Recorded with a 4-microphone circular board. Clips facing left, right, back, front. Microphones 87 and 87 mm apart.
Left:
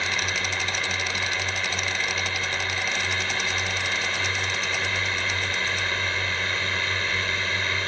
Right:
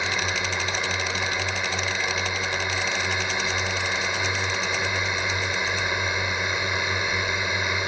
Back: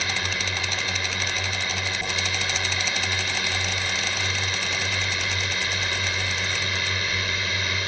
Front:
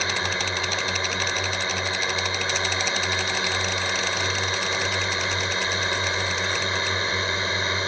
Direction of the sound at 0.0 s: 30° right.